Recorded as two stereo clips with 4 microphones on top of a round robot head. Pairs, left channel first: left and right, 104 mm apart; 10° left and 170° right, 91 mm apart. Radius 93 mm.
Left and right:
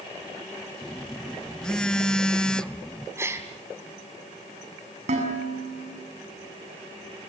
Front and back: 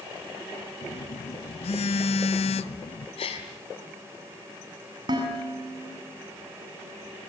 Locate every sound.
0.8 s a phone buzzing: 5° left, 0.9 m
3.2 s a gasp: 25° right, 5 m
5.1 s dishes clattering: 120° right, 7.5 m